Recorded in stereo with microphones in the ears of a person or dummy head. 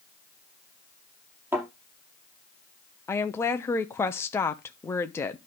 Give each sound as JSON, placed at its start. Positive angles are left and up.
{"t": 1.5, "sound": "a thud", "side_deg": -5, "distance_m": 5.5}
{"t": 3.1, "sound": "a woman speaking", "side_deg": 15, "distance_m": 0.8}